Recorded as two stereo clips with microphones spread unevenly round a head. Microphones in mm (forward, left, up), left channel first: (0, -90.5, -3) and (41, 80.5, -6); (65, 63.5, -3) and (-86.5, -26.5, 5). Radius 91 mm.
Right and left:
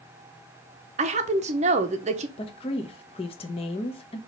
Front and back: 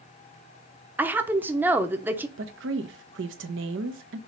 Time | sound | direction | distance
1.0 | a woman speaking | 130° left | 0.8 m
2.4 | a woman speaking | 165° right | 0.9 m